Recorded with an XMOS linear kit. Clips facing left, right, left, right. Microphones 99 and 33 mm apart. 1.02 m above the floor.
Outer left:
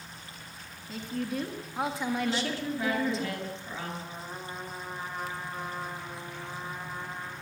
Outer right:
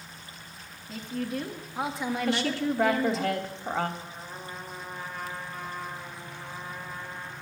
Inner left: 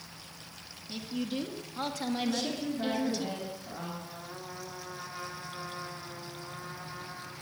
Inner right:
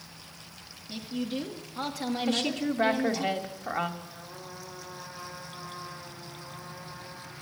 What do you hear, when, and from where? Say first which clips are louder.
0.9 s a woman speaking: outer right 1 dB, inner right 2 dB; centre (ahead or behind), 2 m
2.3 s a woman speaking: outer right 4 dB, inner right 4 dB; 65° right (ahead or behind), 2 m
4.0 s a trumpet: outer left 1 dB, inner left 1 dB; 20° left (ahead or behind), 3 m